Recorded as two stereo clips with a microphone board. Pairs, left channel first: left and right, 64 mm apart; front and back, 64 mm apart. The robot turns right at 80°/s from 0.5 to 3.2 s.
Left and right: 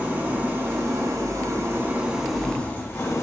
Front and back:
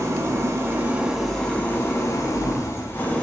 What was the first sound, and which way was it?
An engine running, 150° right.